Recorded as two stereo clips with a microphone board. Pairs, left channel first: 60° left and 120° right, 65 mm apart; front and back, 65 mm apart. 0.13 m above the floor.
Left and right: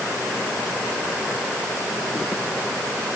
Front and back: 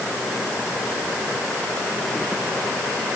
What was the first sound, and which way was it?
Only background noise.